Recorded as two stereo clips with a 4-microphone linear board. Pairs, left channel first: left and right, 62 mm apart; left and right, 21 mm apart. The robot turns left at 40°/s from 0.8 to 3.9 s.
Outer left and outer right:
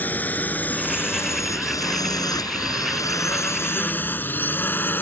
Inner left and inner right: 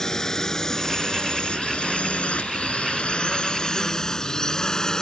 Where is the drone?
30° left (ahead or behind).